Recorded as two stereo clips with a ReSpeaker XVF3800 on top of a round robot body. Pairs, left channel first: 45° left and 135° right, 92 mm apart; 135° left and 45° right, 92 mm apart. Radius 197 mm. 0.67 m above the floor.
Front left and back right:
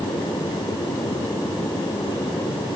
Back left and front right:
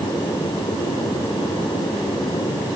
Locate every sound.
Only background noise.